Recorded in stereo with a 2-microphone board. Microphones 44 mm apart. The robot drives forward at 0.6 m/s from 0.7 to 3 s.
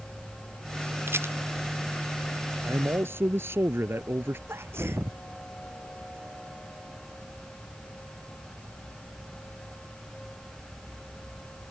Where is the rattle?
70° right (ahead or behind); by 1.4 s 65° right (ahead or behind).